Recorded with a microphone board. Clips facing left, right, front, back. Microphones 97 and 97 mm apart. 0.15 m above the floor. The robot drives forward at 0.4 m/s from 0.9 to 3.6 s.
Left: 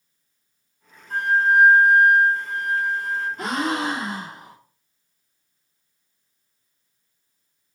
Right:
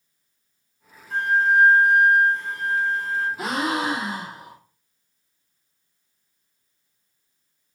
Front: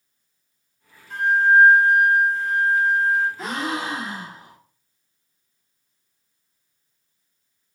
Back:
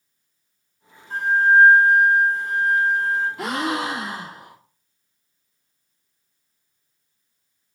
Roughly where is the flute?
Behind left.